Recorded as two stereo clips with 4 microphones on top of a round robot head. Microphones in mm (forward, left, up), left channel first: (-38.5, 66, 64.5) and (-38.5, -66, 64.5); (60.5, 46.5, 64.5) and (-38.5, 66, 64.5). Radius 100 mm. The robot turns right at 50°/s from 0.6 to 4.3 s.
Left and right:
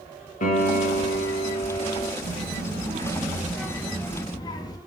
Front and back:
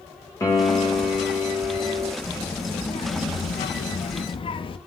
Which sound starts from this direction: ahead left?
A piano, at 0.4 s.